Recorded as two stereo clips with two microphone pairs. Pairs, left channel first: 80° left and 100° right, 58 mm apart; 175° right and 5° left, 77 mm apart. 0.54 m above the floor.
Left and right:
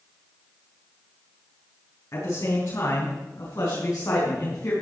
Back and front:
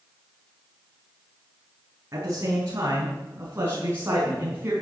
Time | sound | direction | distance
2.1 | a man speaking | 50° left | 6.5 m